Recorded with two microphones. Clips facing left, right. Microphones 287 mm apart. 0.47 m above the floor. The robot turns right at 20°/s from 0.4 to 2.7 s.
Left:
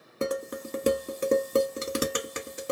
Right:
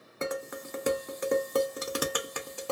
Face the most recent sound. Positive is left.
turn(degrees=20)  # may be behind; listen again after turning